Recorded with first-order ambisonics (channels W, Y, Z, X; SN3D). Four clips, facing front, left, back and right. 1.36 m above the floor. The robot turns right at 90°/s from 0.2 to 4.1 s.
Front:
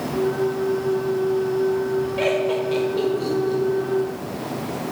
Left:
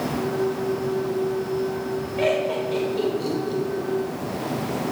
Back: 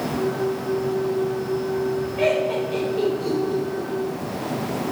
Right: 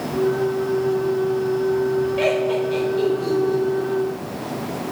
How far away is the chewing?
No chewing in this recording.